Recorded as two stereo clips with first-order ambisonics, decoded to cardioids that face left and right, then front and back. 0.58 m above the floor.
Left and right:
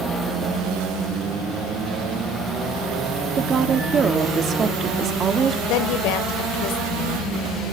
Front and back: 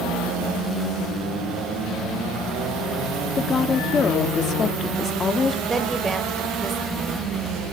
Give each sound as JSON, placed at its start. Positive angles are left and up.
{"t": 3.4, "sound": "a woman speaking", "azimuth_deg": -55, "distance_m": 1.3}
{"t": 5.7, "sound": "a woman speaking", "azimuth_deg": 105, "distance_m": 2.0}